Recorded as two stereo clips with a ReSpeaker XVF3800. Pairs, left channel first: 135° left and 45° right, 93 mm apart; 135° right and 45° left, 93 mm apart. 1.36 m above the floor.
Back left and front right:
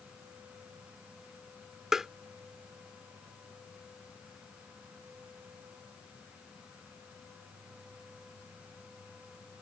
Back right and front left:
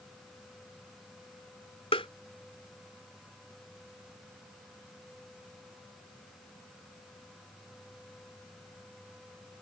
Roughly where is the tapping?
Behind right.